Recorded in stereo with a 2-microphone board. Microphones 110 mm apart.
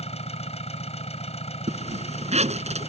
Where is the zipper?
80° right.